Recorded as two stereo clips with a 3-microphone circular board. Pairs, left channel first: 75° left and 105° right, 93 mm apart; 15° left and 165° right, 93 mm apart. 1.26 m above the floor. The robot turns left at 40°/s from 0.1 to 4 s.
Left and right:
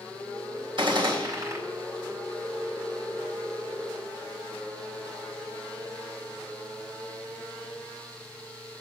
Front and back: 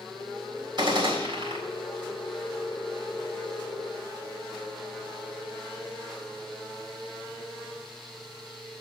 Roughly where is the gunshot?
Behind right.